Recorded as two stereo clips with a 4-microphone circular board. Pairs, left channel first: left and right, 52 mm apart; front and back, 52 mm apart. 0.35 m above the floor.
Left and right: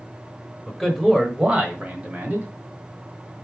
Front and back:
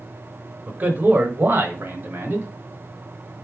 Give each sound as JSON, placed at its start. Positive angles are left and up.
{"t": 0.7, "sound": "a man speaking", "azimuth_deg": 160, "distance_m": 0.9}